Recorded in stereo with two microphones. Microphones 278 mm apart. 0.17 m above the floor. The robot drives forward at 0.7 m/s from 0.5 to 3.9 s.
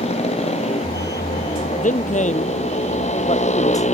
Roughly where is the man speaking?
Left.